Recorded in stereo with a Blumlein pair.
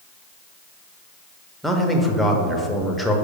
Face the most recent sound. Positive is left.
turn(degrees=0)